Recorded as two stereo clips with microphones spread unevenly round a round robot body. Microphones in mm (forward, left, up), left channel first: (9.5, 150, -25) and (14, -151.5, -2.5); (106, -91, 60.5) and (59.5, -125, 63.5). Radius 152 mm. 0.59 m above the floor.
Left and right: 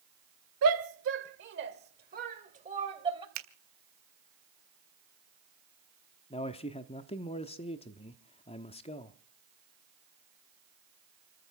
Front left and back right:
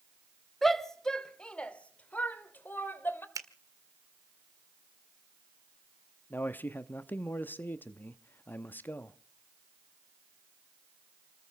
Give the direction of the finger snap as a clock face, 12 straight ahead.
4 o'clock.